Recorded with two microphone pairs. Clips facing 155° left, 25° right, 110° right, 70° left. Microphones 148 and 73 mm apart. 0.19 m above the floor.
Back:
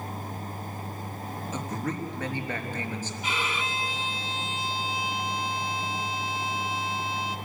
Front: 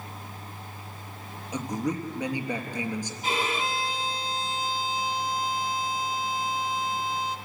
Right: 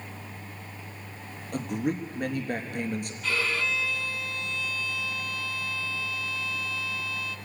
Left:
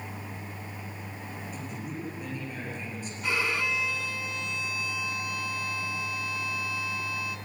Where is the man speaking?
100° right, 3.5 m.